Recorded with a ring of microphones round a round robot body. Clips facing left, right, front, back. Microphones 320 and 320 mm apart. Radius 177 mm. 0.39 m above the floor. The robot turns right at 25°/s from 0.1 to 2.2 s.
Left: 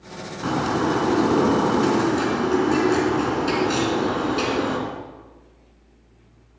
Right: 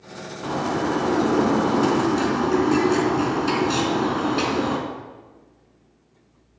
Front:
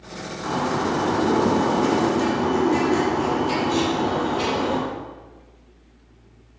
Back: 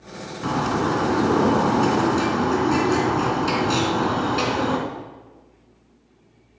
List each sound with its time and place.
0.4 s a bird: 150° left, 3 m; by 4.8 s 170° right, 3 m